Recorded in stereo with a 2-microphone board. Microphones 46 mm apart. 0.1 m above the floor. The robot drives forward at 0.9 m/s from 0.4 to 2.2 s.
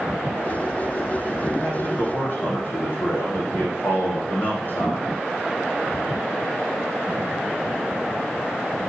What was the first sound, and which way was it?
A man speaking, 55° left (ahead or behind).